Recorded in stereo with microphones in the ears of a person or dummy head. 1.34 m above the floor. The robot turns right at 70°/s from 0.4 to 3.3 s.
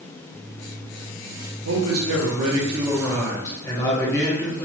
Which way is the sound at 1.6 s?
100° right.